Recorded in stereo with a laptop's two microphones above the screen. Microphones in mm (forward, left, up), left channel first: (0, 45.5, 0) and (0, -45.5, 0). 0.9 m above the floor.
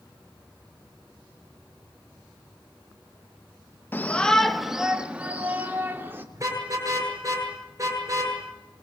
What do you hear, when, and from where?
3.9 s a shout: 25° left (ahead or behind), 1.2 m; by 6.2 s 25° right (ahead or behind), 3.5 m
6.3 s a car horn: 35° right (ahead or behind), 8 m